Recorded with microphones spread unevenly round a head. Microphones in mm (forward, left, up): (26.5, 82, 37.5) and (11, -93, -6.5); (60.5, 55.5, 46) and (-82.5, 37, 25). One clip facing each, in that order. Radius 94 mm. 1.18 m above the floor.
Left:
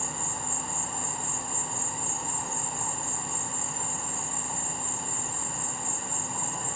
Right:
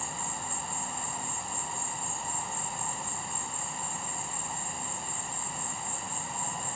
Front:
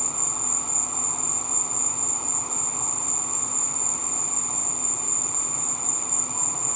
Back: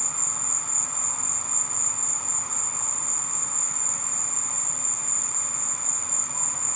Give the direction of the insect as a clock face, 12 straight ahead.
10 o'clock.